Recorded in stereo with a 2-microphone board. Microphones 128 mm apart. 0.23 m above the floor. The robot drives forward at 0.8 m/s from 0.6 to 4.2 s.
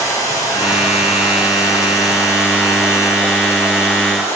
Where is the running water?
25° left (ahead or behind), 9.5 m; by 4.4 s 20° left (ahead or behind), 12 m.